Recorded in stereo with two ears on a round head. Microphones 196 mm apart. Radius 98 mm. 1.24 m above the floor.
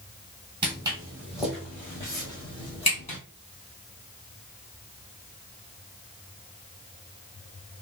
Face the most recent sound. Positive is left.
turn(degrees=30)  # may be behind; listen again after turning